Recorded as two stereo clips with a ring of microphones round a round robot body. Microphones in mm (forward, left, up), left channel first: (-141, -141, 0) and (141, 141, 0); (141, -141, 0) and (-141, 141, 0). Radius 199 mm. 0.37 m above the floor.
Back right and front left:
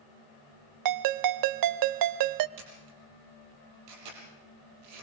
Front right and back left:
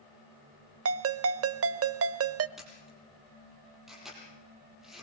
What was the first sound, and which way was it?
A ringtone, 80° left.